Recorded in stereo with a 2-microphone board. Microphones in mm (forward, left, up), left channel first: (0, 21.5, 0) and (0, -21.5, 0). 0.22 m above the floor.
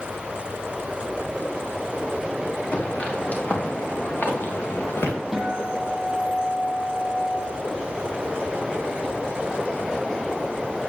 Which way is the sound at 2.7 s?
30° left (ahead or behind).